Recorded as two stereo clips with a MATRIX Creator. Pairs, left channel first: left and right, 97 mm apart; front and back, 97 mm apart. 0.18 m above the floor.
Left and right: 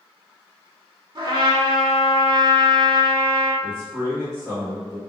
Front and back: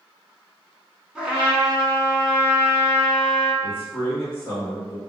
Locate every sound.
1.1 s a trumpet: 105° right, 0.6 m
3.6 s a man speaking: 50° right, 1.7 m